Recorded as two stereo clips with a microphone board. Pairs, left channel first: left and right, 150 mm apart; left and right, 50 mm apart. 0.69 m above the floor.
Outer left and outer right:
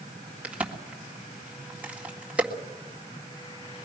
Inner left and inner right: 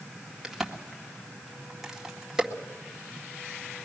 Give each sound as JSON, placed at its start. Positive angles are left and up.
{"t": 0.4, "sound": "a crack", "side_deg": -10, "distance_m": 2.0}